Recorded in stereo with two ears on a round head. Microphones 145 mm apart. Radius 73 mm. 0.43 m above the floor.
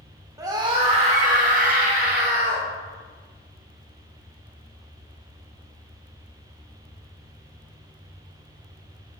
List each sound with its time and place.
0.4 s a scream: 20° right (ahead or behind), 0.9 m; by 2.7 s 65° right (ahead or behind), 2 m